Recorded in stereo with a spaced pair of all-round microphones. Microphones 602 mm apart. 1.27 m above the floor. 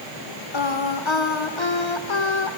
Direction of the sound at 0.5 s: 50° left (ahead or behind).